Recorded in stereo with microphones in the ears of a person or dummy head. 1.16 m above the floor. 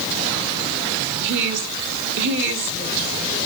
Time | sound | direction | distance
1.2 | a woman speaking | 65° right (ahead or behind) | 2.5 m